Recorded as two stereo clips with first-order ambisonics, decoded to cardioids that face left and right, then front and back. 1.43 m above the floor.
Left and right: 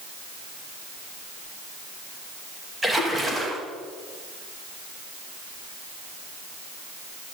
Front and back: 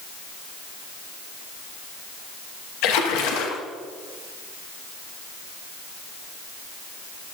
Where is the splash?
10° right, 2.0 m.